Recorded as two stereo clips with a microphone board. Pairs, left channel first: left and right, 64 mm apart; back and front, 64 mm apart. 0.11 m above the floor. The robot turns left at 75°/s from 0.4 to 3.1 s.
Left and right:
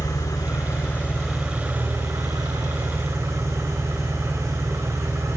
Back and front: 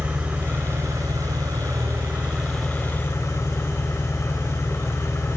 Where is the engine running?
70° left, 4.5 m; by 5.4 s 135° right, 4.5 m.